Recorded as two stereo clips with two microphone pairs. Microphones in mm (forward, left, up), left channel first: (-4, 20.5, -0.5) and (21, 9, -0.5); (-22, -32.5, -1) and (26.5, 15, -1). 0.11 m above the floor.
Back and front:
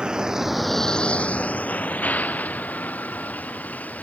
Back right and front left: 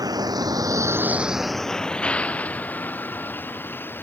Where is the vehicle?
30° left; by 4.0 s 165° left.